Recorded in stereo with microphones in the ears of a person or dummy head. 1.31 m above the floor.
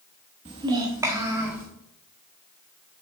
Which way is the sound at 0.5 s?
20° right (ahead or behind).